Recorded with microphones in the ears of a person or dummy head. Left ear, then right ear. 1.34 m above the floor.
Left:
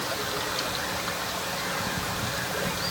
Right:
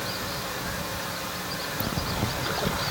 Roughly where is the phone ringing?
No phone ringing in this recording.